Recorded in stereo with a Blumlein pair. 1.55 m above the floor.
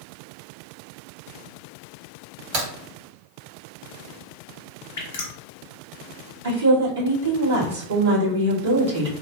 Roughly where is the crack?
Ahead right.